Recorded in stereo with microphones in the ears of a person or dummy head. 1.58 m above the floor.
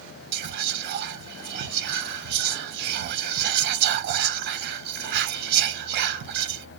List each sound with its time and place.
0.3 s whispering: 60° right (ahead or behind), 0.6 m